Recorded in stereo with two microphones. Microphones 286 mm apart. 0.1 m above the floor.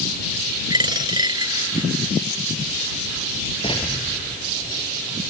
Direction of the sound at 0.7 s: 15° right (ahead or behind).